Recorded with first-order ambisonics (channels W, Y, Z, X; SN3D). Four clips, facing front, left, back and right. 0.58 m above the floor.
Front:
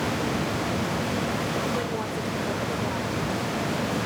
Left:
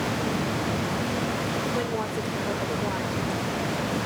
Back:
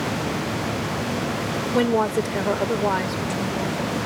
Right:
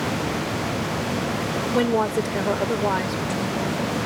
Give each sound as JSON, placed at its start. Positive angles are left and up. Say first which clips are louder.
{"t": 1.7, "sound": "a woman speaking", "louder": "right 7 dB, back 8 dB", "azimuth_deg": -145}